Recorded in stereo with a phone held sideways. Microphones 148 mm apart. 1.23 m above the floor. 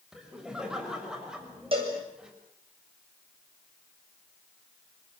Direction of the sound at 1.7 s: 40° right (ahead or behind).